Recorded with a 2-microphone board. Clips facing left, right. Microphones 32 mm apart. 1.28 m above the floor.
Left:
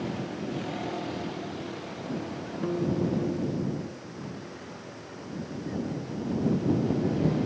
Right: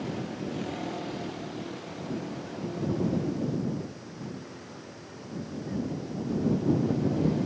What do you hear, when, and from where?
0.0 s a vehicle: 5° left (ahead or behind); by 7.5 s 15° left (ahead or behind)
2.6 s a guitar: 80° left